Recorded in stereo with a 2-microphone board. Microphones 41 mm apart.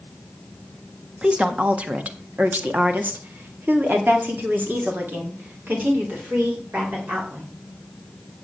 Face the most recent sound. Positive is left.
turn(degrees=-50)  # may be behind; listen again after turning